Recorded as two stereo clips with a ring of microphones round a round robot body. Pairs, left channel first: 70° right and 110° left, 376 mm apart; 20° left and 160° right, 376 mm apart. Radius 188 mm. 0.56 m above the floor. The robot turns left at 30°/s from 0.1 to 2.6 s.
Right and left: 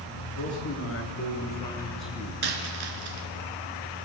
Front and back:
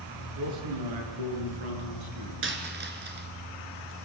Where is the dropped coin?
145° left, 3 m; by 3.3 s 140° left, 3 m.